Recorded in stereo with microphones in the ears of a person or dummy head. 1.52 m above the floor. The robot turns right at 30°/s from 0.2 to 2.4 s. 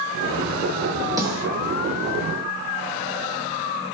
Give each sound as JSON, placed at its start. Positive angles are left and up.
{"t": 1.2, "sound": "a snare drum", "side_deg": -20, "distance_m": 0.7}